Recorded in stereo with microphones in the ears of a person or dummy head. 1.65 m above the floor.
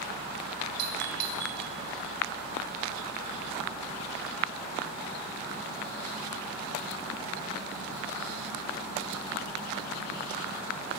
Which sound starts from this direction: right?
A doorbell, at 0.8 s.